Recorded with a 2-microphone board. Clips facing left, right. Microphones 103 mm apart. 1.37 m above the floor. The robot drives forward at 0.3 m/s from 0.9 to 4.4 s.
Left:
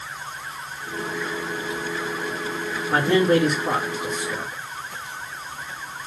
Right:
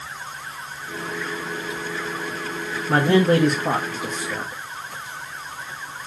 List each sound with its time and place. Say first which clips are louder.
2.9 s a man speaking: right 1 dB; 65° right (ahead or behind), 1.3 m; by 4.6 s 50° right (ahead or behind), 1.6 m